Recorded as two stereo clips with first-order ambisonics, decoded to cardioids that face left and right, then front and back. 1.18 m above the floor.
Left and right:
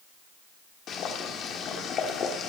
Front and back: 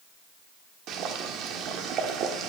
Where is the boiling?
140° left, 1.3 m.